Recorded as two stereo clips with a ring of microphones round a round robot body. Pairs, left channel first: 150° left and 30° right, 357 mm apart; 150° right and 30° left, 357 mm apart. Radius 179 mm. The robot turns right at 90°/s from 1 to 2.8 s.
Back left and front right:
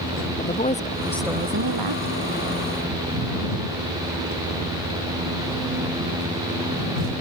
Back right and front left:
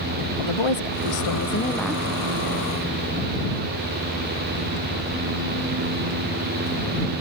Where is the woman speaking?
140° right; by 2.4 s 15° right.